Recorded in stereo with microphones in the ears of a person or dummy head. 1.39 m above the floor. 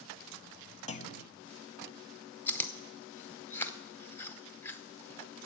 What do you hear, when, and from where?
0.9 s a clunk: 35° left (ahead or behind), 0.7 m
2.5 s chewing: 15° left (ahead or behind), 0.8 m